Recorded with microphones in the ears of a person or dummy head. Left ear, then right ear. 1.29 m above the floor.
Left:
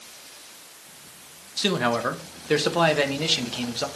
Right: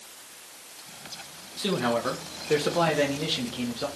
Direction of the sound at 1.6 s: 35° left (ahead or behind).